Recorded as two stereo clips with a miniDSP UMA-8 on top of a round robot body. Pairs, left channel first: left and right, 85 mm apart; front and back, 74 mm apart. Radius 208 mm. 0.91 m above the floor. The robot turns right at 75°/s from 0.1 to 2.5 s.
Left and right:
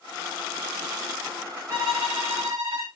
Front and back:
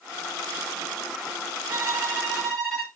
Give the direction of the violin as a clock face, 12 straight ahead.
5 o'clock.